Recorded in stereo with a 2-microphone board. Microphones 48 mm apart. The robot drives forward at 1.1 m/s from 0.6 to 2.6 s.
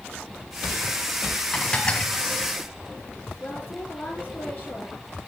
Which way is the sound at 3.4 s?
35° left (ahead or behind).